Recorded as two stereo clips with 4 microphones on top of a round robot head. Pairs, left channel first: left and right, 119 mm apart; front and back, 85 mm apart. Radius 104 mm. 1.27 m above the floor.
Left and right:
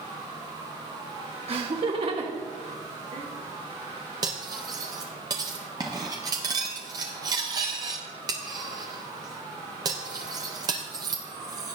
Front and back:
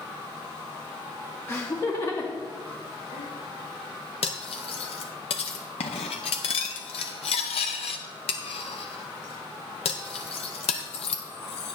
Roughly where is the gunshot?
No gunshot in this recording.